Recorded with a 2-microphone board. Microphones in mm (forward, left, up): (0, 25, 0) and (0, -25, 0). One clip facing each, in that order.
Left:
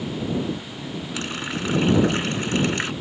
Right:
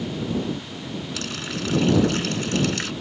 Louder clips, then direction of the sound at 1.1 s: Left 4 dB; 20° left (ahead or behind).